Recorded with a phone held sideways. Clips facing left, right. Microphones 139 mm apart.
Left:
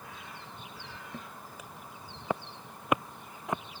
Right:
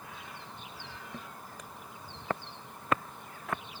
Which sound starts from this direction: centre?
Footsteps, at 1.1 s.